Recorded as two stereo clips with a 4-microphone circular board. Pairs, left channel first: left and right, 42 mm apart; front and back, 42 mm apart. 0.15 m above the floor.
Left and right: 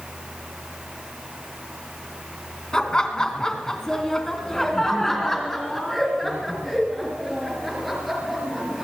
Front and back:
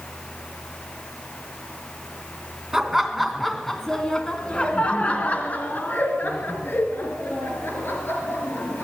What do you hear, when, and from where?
2.7 s laughter: 120° left, 1.7 m; by 8.8 s straight ahead, 4 m